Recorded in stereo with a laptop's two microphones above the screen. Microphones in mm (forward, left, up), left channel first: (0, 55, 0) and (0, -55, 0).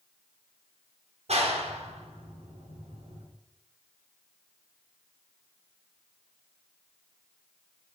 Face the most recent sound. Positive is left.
turn(degrees=-70)  # may be behind; listen again after turning